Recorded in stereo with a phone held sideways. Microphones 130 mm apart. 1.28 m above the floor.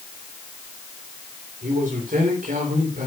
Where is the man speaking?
80° right, 4 m; by 3.1 s 90° right, 4 m.